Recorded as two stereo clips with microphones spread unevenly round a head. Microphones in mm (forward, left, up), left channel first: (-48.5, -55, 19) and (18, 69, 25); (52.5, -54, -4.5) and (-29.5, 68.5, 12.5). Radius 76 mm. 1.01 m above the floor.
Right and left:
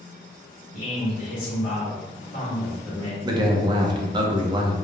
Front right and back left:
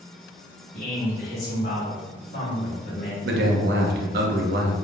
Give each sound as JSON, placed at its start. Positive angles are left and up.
{"t": 0.7, "sound": "a man speaking", "azimuth_deg": -135, "distance_m": 1.4}
{"t": 3.2, "sound": "a man speaking", "azimuth_deg": 120, "distance_m": 0.5}